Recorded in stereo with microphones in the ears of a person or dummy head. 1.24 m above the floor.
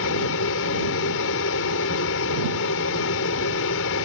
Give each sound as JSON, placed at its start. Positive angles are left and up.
{"t": 0.0, "sound": "an aircraft", "side_deg": 70}